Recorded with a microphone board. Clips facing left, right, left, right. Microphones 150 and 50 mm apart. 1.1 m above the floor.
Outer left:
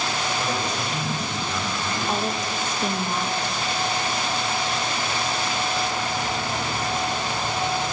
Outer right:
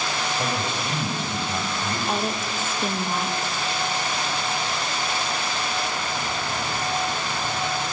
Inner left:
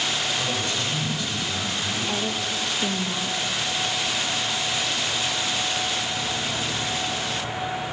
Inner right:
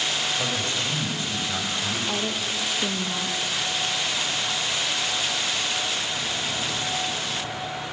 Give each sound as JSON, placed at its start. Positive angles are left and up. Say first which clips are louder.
{"t": 0.4, "sound": "a man speaking", "louder": "even, even", "side_deg": -30, "distance_m": 5.5}
{"t": 2.1, "sound": "a woman speaking", "louder": "outer left 2 dB, inner left 1 dB", "side_deg": -5, "distance_m": 1.2}